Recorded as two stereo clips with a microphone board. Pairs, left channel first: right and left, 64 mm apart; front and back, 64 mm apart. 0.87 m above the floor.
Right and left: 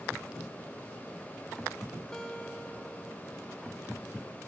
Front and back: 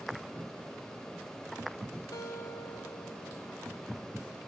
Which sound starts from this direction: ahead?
A guitar, at 2.1 s.